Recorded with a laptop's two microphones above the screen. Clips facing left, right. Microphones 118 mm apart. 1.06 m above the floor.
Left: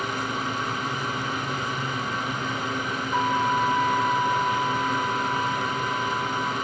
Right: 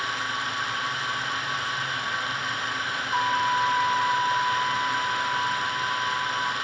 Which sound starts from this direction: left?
A fan, at 0.0 s.